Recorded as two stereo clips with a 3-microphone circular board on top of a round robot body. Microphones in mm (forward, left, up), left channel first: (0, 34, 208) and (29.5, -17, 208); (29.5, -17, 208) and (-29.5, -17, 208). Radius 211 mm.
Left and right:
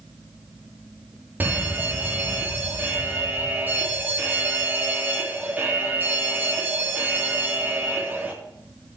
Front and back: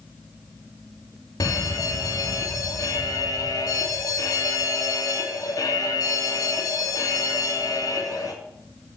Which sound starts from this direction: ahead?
An alarm, at 1.4 s.